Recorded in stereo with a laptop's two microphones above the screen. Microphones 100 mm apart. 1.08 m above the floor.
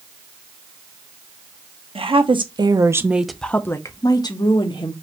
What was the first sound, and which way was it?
A woman speaking, 65° right (ahead or behind).